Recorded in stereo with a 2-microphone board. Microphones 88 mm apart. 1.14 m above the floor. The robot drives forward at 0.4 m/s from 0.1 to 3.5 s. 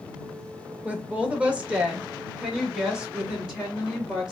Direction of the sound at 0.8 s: 15° right (ahead or behind).